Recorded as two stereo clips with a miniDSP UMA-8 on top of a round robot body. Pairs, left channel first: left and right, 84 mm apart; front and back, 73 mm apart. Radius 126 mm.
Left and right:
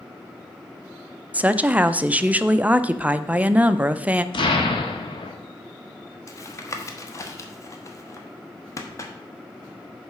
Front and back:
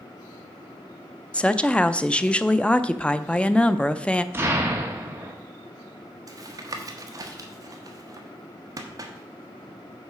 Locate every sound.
1.3 s a woman speaking: 50° right, 0.6 m
4.3 s an explosion: 115° left, 1.1 m
6.3 s tapping: 145° left, 1.1 m